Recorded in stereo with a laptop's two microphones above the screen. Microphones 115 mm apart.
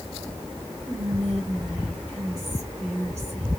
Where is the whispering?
70° right (ahead or behind), 1.6 m.